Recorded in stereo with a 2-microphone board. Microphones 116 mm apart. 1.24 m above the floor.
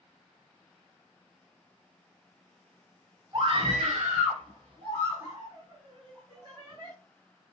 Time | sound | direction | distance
3.3 | a scream | 40° right (ahead or behind) | 0.9 m